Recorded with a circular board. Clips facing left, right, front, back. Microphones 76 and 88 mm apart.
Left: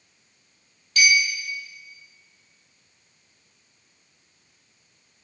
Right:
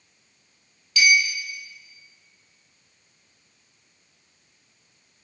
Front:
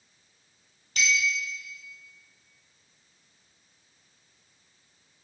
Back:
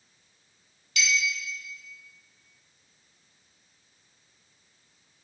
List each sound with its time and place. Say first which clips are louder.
1.0 s a clink: right 1 dB, front 1 dB; 45° left, 2.0 m